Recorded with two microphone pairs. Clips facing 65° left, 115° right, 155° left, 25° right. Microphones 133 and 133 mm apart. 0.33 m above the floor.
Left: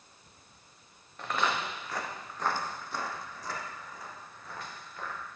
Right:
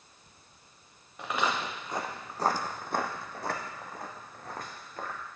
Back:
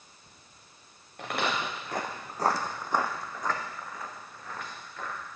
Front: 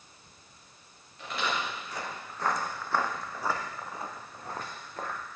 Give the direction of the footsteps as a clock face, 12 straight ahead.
6 o'clock.